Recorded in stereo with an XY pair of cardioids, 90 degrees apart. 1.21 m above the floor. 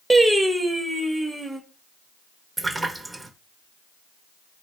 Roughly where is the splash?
Ahead right.